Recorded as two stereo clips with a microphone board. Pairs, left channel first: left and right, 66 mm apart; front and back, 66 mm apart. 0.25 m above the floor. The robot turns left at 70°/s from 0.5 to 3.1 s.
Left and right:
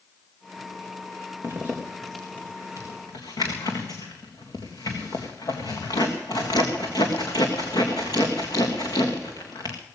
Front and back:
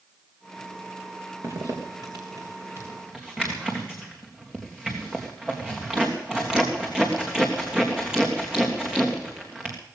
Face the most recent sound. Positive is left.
turn(degrees=105)